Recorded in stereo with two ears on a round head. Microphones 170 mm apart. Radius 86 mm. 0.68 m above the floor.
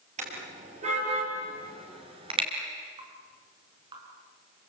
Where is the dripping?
25° right (ahead or behind), 5.5 m.